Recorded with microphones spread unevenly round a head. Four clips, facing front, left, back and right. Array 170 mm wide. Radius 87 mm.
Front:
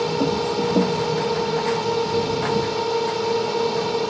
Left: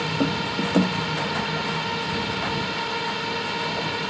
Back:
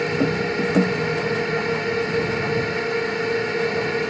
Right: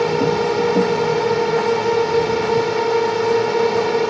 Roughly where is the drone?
Right.